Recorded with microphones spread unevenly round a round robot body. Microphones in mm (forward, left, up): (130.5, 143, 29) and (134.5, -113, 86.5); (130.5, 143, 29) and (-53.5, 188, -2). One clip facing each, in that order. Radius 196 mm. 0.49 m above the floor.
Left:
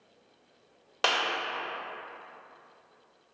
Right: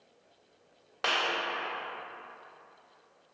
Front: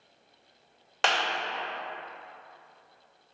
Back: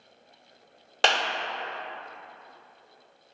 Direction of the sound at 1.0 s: 125° left.